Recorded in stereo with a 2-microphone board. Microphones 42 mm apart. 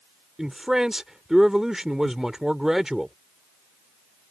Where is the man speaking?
15° right (ahead or behind).